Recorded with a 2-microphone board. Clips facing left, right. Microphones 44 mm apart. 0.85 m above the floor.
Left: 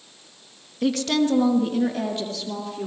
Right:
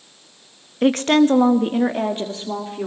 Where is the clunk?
No clunk in this recording.